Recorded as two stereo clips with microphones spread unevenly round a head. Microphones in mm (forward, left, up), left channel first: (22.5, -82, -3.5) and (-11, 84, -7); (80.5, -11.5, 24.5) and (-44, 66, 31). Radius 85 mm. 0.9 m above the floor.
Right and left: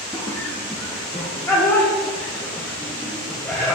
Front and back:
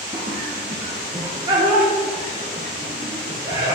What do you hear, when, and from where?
0.1 s laughter: 155° right, 0.9 m